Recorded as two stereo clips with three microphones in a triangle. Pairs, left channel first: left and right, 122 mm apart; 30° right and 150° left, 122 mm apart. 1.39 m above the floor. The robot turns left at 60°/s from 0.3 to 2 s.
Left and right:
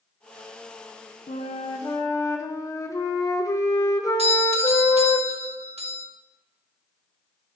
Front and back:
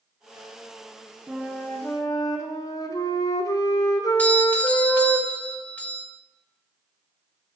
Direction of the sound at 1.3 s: 70° left.